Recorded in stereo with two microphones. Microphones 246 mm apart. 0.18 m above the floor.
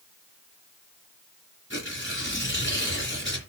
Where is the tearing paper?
50° left (ahead or behind), 2.5 m.